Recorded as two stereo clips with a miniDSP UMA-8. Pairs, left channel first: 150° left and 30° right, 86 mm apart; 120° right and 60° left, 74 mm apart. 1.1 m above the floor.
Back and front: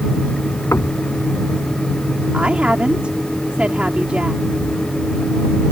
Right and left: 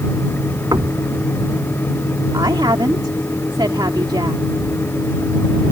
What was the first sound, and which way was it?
Knocking, 95° left.